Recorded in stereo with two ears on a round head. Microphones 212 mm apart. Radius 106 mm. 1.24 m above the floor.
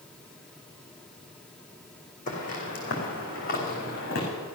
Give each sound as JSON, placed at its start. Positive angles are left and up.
{"t": 2.3, "sound": "footsteps", "side_deg": 35, "distance_m": 4.0}